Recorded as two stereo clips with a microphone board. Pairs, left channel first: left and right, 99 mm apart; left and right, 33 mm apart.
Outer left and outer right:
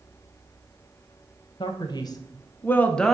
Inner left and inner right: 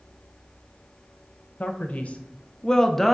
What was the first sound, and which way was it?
A man speaking, 55° left (ahead or behind).